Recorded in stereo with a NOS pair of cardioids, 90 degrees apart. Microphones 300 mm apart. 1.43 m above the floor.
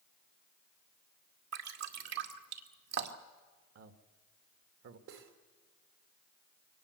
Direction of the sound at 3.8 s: 55° right.